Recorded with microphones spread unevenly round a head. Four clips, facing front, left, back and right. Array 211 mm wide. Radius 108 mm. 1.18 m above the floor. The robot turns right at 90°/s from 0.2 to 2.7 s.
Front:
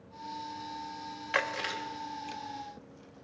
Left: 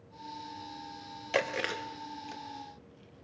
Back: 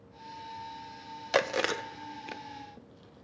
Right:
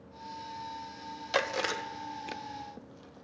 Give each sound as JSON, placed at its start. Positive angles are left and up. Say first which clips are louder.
{"t": 1.3, "sound": "chewing", "louder": "right 1 dB, back 5 dB", "azimuth_deg": 155, "distance_m": 0.6}